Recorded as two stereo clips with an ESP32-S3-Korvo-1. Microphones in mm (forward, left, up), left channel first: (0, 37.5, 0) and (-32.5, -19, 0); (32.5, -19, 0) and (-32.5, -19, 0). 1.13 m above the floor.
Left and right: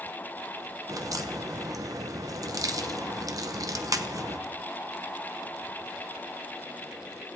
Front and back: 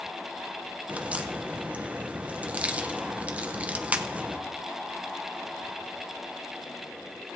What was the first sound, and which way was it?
A crack, 115° right.